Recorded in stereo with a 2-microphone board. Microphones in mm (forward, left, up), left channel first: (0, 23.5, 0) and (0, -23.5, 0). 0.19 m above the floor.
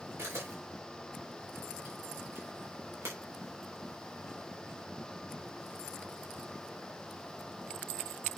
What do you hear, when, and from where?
0.2 s a camera shutter: 75° right (ahead or behind), 5 m